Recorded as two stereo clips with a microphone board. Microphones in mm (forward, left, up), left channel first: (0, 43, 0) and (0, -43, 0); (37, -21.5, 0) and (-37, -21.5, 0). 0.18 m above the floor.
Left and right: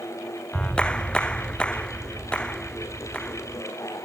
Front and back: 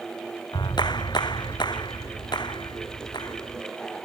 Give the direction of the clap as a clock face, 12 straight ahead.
12 o'clock.